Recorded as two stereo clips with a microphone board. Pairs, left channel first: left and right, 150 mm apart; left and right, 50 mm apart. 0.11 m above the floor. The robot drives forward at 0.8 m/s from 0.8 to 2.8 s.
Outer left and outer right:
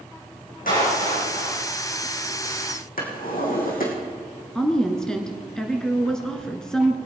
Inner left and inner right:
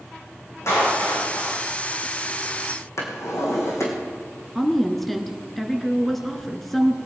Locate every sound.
0.7 s a clap: 65° left (ahead or behind), 5.5 m; by 1.6 s 60° left (ahead or behind), 5.5 m
3.0 s a drawer: 70° left (ahead or behind), 4 m
4.5 s a woman speaking: 5° left (ahead or behind), 1.4 m